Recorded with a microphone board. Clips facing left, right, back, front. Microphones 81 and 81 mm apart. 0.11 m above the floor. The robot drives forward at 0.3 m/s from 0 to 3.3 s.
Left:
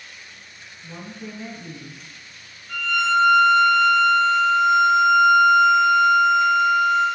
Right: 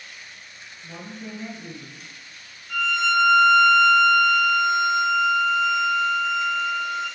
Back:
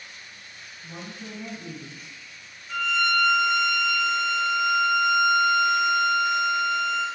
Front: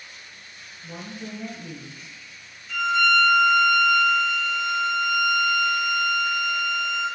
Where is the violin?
130° left, 1.5 m; by 7.1 s 135° left, 1.6 m.